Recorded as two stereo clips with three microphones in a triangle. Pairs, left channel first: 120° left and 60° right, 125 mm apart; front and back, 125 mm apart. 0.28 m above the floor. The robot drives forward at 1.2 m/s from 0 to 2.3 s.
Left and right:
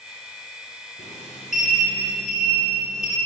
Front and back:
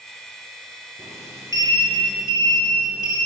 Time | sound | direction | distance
1.0 | a sliding door | 110° left | 3.5 m